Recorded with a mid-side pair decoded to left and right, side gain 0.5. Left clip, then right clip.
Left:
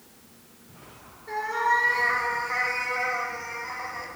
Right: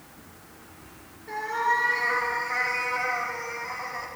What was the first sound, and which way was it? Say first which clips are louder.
A cat meowing: left 1 dB; 15° left.